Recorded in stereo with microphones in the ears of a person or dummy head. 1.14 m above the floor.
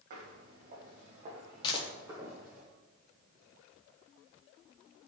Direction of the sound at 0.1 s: 45° right (ahead or behind).